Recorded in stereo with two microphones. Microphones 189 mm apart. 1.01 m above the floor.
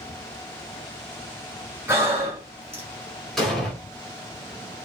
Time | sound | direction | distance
1.9 | breathing | 15° right (ahead or behind) | 2 m
3.4 | an explosion | centre (ahead or behind) | 1.7 m